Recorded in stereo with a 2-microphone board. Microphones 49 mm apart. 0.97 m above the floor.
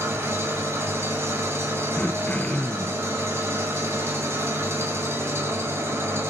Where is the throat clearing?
25° left (ahead or behind), 0.7 m.